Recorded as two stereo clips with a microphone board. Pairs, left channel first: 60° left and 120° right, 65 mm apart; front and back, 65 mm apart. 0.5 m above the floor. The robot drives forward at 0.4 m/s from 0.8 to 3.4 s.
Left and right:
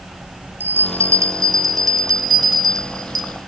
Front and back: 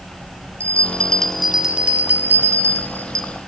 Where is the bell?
70° right, 0.6 m; by 3.5 s 145° right, 1.0 m.